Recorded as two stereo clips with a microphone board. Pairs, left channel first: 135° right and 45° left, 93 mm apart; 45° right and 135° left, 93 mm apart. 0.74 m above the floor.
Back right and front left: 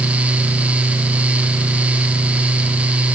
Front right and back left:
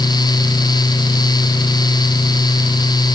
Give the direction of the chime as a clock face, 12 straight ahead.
No chime in this recording.